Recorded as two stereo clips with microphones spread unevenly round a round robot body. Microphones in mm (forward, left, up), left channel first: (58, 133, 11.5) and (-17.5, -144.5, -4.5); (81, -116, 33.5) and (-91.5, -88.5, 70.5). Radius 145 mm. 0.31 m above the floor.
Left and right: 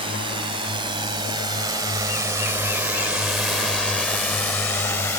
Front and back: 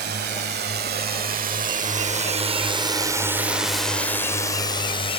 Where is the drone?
175° right; by 5.2 s 5° right.